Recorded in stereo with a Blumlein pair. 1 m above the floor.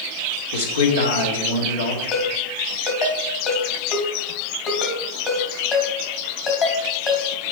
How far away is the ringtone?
About 2.0 m.